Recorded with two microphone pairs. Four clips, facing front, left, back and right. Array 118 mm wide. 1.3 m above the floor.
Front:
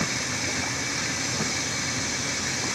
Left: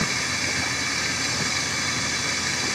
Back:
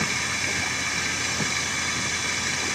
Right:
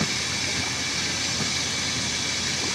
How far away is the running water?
About 1.1 m.